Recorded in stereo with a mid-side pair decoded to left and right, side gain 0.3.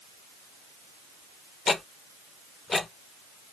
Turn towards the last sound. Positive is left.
turn(degrees=50)